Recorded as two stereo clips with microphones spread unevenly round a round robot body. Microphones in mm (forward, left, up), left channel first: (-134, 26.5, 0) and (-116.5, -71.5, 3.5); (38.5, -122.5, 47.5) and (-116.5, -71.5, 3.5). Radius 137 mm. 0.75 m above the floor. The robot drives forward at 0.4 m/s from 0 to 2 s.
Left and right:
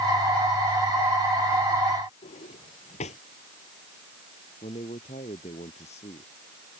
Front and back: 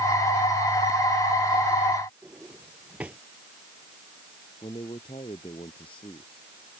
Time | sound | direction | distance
2.2 | a drawer | 75° left | ?
4.6 | a man speaking | 55° left | ?